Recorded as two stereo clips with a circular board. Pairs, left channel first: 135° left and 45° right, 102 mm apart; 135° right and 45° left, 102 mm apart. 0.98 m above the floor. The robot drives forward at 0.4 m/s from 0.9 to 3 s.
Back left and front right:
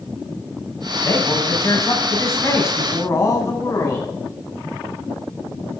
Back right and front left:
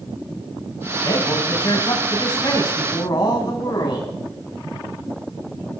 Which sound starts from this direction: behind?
A man speaking, at 1.0 s.